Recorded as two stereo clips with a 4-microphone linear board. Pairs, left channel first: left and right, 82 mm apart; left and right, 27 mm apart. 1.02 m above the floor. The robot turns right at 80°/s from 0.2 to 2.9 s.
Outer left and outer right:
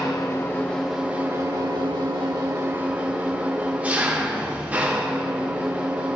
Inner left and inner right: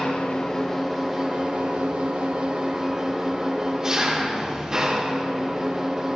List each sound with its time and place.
0.0 s an engine running: 125° left, 2 m; by 6.2 s 20° right, 2 m